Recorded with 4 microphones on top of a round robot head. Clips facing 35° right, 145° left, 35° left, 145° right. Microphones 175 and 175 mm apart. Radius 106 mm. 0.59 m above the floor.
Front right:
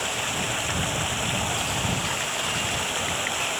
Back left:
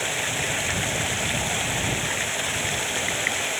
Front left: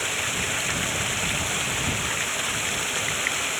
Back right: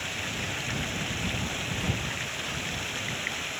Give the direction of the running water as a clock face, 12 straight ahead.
10 o'clock.